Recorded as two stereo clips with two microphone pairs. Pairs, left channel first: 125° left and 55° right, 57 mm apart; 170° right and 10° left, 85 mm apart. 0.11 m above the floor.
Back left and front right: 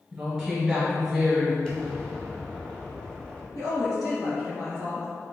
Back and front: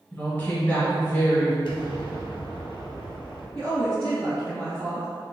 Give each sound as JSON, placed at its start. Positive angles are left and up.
{"t": 0.1, "sound": "a woman speaking", "azimuth_deg": -135, "distance_m": 1.7}
{"t": 1.6, "sound": "an explosion", "azimuth_deg": -160, "distance_m": 0.8}
{"t": 3.5, "sound": "a woman speaking", "azimuth_deg": 125, "distance_m": 2.0}